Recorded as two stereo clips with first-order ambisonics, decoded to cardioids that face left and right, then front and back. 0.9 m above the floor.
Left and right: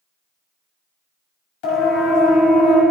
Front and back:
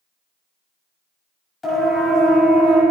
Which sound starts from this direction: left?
A siren, at 1.6 s.